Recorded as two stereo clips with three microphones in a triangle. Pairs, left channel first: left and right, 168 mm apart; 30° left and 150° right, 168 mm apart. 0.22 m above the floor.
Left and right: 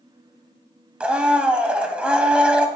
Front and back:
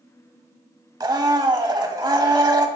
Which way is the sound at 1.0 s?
165° right.